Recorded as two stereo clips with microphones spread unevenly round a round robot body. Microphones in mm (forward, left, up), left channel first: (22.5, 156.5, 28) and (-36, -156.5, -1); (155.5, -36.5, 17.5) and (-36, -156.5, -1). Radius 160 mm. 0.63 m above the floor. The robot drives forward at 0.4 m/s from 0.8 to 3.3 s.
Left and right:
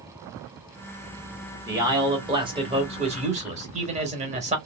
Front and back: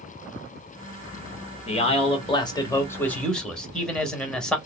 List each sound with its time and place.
1.7 s a man speaking: 25° right, 1.3 m; by 4.6 s 60° right, 1.0 m